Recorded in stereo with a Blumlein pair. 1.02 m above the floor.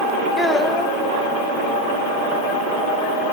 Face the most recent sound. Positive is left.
turn(degrees=5)